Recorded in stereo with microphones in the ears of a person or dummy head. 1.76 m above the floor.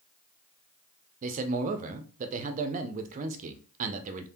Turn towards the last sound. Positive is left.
turn(degrees=-45)  # may be behind; listen again after turning